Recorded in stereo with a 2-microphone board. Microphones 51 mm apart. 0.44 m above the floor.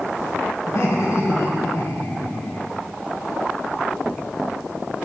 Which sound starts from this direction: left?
Laughter, at 0.7 s.